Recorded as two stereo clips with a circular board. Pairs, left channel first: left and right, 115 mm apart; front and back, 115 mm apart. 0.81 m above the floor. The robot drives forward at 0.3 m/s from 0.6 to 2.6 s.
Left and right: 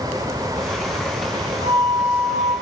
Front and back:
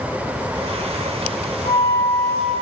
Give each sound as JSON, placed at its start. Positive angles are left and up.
{"t": 1.6, "sound": "a flute", "azimuth_deg": -120, "distance_m": 4.0}